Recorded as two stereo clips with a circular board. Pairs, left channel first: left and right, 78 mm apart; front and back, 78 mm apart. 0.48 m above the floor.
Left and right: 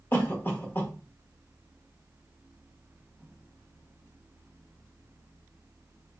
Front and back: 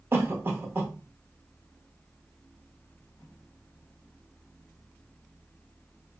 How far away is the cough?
About 0.9 m.